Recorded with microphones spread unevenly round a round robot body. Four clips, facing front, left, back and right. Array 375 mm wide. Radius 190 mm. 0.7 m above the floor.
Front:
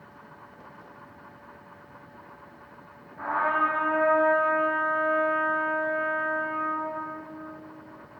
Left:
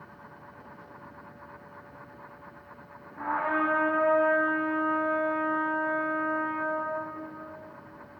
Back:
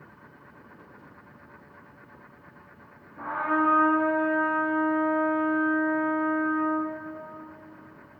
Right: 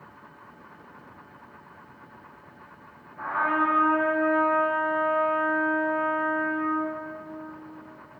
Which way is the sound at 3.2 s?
160° left.